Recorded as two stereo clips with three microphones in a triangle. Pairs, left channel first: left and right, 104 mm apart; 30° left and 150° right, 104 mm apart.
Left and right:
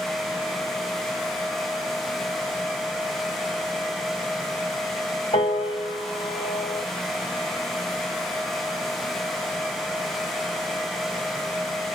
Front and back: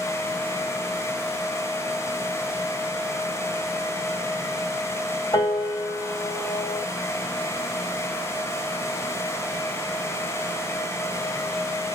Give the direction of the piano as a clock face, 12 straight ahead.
9 o'clock.